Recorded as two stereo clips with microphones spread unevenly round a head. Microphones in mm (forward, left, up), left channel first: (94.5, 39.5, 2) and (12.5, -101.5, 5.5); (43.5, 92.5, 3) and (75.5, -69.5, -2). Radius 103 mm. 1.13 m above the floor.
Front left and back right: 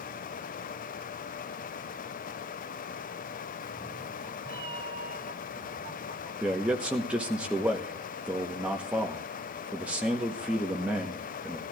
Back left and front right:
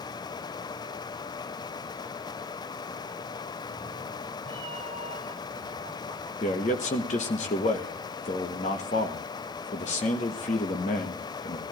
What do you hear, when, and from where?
3.6 s a cat meowing: 30° right, 1.0 m; by 6.3 s 135° right, 1.8 m
6.4 s a man speaking: 155° left, 0.9 m